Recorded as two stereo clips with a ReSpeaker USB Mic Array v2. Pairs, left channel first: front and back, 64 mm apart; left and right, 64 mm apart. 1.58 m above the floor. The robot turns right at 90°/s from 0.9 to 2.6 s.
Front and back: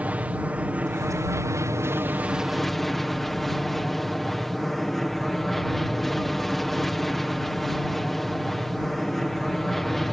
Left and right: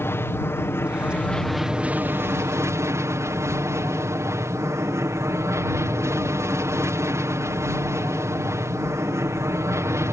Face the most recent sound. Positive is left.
turn(degrees=-85)